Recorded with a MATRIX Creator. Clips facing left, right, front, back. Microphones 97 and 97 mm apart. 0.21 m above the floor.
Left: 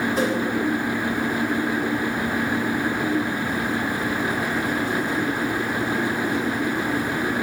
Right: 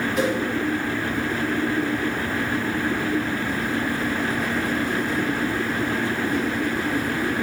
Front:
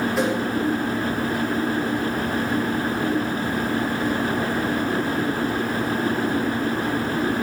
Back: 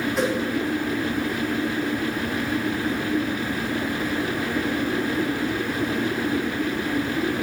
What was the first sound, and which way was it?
A whoosh, 85° left.